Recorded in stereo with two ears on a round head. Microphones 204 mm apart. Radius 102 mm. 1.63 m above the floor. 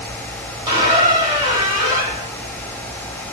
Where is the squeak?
15° right (ahead or behind), 1.6 m.